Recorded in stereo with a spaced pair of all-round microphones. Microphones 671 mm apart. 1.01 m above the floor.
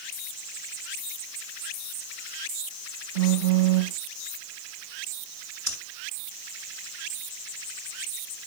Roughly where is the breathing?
Right.